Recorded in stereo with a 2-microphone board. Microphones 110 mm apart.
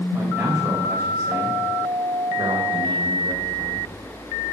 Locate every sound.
0.1 s a man speaking: 15° right (ahead or behind), 6 m; by 3.9 s 40° right (ahead or behind), 5 m